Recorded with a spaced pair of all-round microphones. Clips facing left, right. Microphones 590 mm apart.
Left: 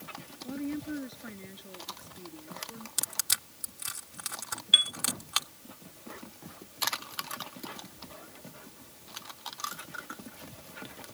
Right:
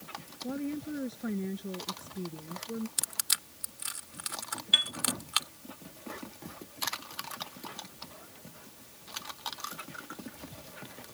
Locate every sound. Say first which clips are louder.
0.4 s a woman speaking: even; 65° right (ahead or behind)
3.0 s crushing: left 2 dB; 65° left (ahead or behind)
4.7 s a chime: right 2 dB; 25° right (ahead or behind)